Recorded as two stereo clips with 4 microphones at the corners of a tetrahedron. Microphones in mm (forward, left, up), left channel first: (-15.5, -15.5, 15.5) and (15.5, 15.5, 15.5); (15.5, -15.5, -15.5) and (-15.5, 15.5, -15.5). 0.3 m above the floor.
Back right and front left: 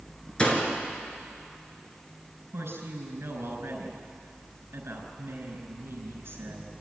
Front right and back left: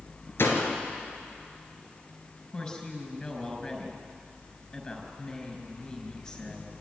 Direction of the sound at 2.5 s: 25° left.